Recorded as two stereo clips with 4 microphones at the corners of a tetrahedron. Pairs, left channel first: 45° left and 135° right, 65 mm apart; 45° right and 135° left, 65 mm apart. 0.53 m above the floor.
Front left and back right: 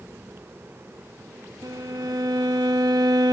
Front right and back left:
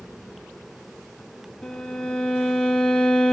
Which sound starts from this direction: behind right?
A violin, at 1.6 s.